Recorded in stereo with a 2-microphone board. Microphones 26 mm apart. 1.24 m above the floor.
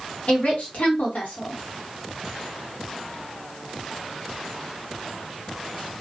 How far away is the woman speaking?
About 1.2 m.